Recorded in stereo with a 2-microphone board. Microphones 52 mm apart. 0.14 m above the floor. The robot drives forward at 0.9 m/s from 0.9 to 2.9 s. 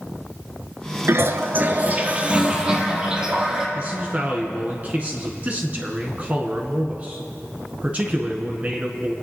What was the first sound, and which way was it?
A toilet flushing, 55° right (ahead or behind).